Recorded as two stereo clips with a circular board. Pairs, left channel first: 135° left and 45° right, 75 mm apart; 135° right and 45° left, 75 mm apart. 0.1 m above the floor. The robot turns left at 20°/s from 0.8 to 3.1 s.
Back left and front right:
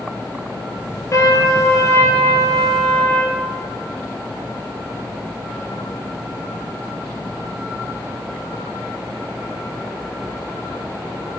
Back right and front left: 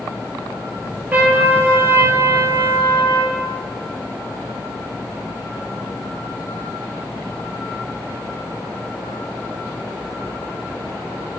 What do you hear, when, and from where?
1.1 s a trumpet: 105° left, 1.4 m; by 3.4 s 65° left, 1.4 m